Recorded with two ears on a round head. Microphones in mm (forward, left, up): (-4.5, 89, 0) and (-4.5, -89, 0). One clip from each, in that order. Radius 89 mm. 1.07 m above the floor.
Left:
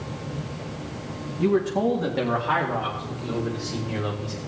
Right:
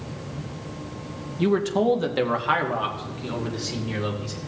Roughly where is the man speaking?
Right.